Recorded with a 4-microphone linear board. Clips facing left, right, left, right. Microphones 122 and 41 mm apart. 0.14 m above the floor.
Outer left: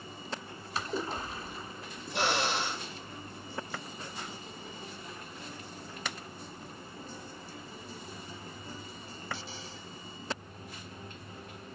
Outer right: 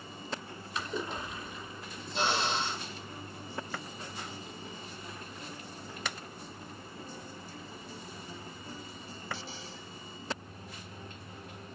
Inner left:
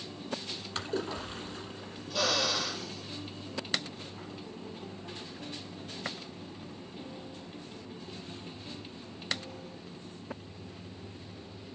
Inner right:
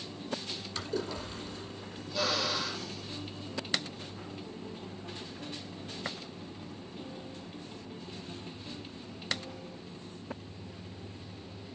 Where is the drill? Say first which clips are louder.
Outer left 1 dB, inner left 2 dB; 65° left (ahead or behind), 3.5 m.